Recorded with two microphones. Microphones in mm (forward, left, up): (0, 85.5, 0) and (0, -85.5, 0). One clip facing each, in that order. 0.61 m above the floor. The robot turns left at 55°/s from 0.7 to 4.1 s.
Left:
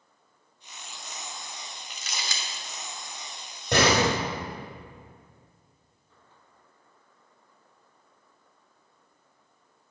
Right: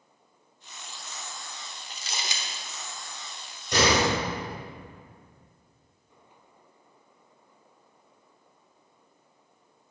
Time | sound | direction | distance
1.9 | crumpling | 40° right (ahead or behind) | 0.9 m
3.7 | a door slam | 80° left | 1.9 m